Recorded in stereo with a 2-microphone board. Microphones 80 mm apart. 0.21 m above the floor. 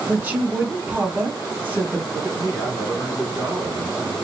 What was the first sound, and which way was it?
A woman speaking, 25° right (ahead or behind).